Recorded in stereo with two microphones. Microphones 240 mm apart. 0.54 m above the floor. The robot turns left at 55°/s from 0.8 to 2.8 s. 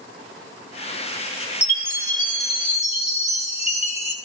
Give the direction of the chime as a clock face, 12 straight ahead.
9 o'clock.